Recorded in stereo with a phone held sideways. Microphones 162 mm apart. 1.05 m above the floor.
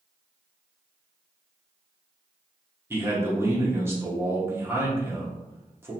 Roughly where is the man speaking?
Centre.